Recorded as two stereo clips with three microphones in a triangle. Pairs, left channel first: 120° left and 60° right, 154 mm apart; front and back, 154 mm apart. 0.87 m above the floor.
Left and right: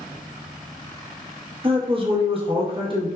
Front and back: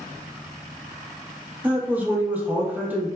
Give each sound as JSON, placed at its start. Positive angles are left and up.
{"t": 1.6, "sound": "a man speaking", "azimuth_deg": -100, "distance_m": 0.9}